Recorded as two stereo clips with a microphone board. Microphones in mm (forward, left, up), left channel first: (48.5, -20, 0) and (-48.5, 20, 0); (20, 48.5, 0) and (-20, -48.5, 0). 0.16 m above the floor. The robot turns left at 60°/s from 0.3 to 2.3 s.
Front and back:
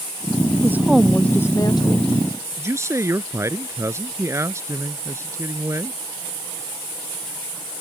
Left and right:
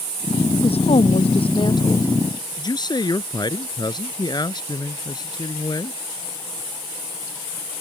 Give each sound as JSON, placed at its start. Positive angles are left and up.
{"t": 0.6, "sound": "a woman speaking", "azimuth_deg": 90}
{"t": 2.6, "sound": "a man speaking", "azimuth_deg": 100}